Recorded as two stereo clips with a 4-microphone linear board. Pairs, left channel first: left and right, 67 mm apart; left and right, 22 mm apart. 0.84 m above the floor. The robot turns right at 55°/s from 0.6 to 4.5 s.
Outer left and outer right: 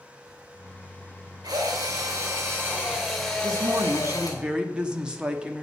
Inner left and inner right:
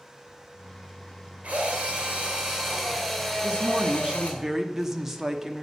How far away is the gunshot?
I don't hear a gunshot.